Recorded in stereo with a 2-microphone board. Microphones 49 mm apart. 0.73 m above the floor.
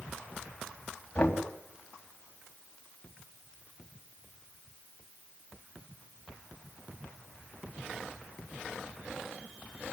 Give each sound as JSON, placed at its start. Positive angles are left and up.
{"t": 1.1, "sound": "knocking", "side_deg": 20, "distance_m": 3.0}